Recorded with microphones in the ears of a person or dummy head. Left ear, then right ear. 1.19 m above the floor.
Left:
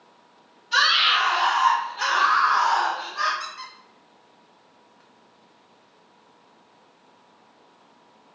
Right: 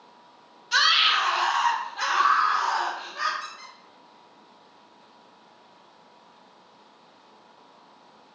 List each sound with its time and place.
0.7 s a scream: 40° right (ahead or behind), 0.9 m; by 3.3 s 35° right (ahead or behind), 1.3 m
3.4 s a squeak: 60° left (ahead or behind), 0.7 m